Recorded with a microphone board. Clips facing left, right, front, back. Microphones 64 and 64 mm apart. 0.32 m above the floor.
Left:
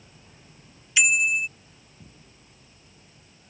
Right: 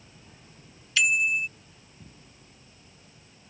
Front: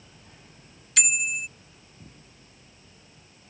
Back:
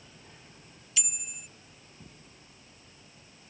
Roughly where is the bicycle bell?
Ahead.